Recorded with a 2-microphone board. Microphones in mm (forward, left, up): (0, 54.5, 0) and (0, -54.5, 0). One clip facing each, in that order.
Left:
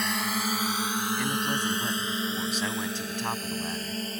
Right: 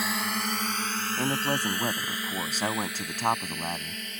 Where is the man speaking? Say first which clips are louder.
Right 1 dB; 40° right (ahead or behind).